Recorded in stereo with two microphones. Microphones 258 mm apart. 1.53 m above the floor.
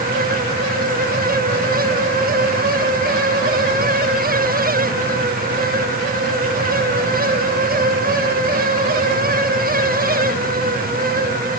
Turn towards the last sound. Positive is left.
No sound to turn to.